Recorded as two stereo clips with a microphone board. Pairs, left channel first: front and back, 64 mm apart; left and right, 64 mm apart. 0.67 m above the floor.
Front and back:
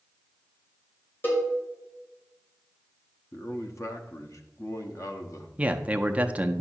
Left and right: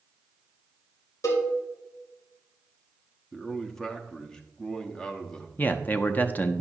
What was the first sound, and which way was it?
A cowbell, 55° left.